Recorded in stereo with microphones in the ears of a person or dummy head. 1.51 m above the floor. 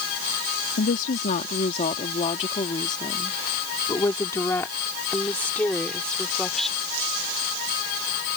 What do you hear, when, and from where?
0.8 s a woman speaking: 50° left (ahead or behind); by 6.8 s 5° left (ahead or behind)